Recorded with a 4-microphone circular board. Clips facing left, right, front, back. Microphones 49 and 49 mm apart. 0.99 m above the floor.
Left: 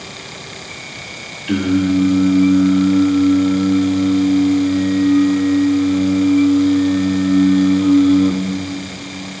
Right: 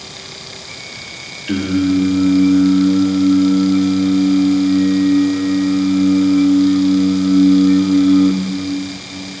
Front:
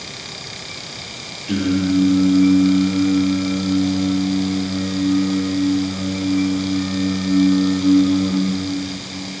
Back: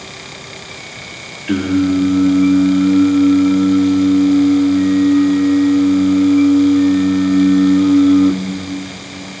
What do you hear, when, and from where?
1.5 s singing: straight behind, 1.9 m